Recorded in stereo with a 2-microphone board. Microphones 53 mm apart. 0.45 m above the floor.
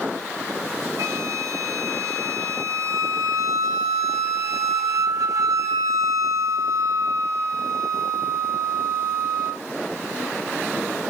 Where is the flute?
90° right, 0.7 m.